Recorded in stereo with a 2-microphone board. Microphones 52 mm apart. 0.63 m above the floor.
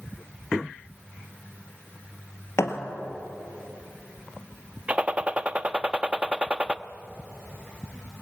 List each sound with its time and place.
2.6 s a thud: 70° left (ahead or behind), 3 m
4.9 s a gunshot: 25° right (ahead or behind), 0.6 m